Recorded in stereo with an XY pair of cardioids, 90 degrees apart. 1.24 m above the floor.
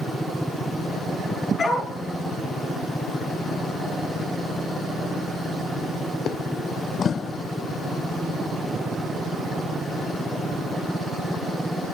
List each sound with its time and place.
1.6 s a dog barking: 50° left, 5.5 m